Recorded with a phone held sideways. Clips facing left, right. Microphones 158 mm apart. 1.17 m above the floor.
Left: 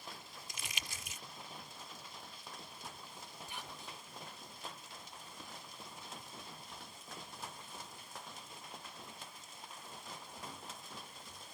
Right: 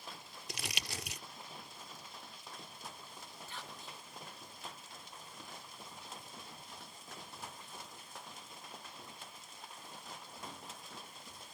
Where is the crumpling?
70° right (ahead or behind).